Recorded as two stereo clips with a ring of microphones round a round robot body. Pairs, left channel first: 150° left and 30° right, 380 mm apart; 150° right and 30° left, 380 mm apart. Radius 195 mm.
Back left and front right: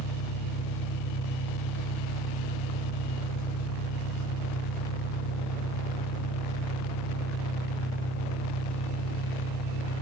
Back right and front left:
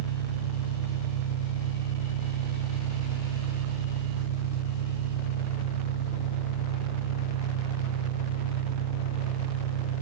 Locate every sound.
0.0 s an engine running: 165° right, 3 m